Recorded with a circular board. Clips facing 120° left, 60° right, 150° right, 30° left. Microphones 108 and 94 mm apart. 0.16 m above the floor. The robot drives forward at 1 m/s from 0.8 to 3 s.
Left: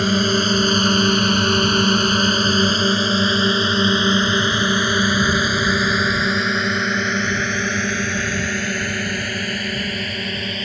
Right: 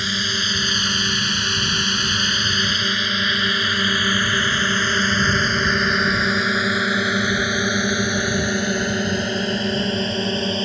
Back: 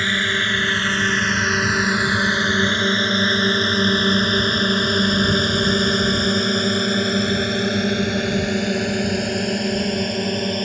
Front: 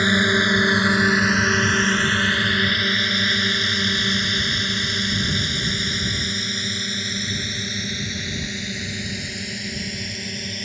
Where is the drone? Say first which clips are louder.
Left 9 dB, front 3 dB; 100° left; by 10.7 s 120° right.